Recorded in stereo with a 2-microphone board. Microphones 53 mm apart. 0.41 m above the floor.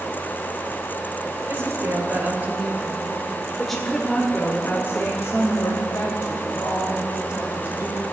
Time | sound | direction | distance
1.5 | a woman speaking | 50° right (ahead or behind) | 2.5 m